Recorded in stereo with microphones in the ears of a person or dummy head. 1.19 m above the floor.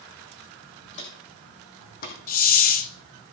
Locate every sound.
0.9 s footsteps: 35° left (ahead or behind), 2.5 m; by 2.2 s 50° left (ahead or behind), 2.5 m
2.3 s a hiss: 50° left (ahead or behind), 0.7 m